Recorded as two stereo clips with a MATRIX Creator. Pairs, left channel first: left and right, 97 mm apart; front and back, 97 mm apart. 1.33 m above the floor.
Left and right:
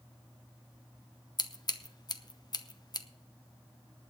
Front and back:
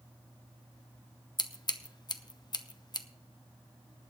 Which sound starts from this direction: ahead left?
Scissors, at 1.4 s.